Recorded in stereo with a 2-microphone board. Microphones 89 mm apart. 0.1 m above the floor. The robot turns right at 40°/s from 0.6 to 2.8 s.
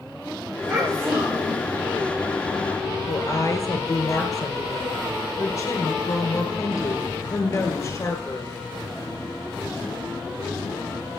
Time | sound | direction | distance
0.7 | a child speaking | 175° right | 4 m
3.1 | a woman speaking | 40° left (ahead or behind) | 1.5 m